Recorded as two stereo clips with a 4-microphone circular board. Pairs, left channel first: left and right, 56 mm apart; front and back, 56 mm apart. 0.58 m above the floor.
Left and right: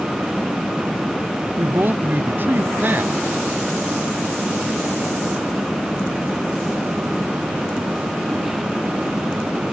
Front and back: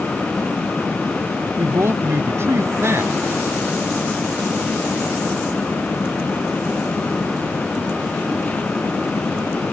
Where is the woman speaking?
140° right.